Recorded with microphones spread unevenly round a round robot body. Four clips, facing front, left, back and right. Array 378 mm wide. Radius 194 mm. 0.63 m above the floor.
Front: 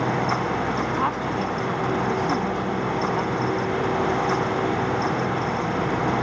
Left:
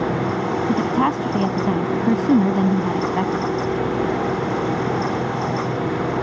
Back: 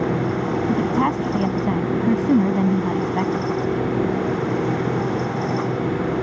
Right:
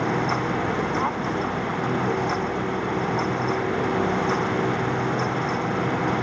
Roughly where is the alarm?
I don't hear an alarm.